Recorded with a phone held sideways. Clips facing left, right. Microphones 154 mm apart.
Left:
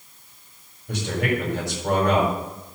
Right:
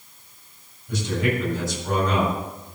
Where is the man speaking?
80° left, 7 m.